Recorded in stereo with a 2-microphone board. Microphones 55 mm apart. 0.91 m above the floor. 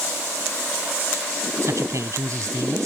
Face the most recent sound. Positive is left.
turn(degrees=-70)  # may be behind; listen again after turning